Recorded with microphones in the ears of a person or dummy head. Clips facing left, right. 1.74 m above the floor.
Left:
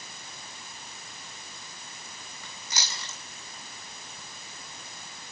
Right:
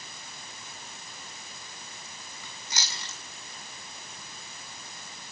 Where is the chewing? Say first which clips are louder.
Left 1 dB; 70° left (ahead or behind), 9 m.